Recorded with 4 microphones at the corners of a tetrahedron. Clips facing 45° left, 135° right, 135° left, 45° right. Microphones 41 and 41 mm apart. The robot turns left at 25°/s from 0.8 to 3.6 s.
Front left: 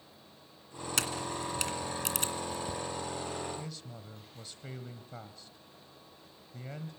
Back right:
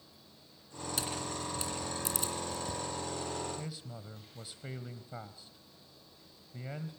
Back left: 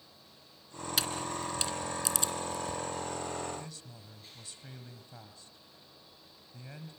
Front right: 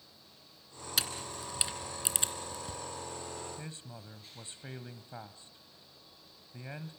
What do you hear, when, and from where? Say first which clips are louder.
1.0 s a camera shutter: front left 4 dB, back left 3 dB; 45° left, 2 m; by 2.8 s straight ahead, 2 m
3.6 s a man speaking: even, even; 65° right, 1.2 m